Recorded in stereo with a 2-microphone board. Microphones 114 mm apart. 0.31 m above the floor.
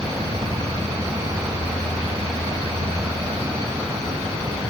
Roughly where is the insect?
Right.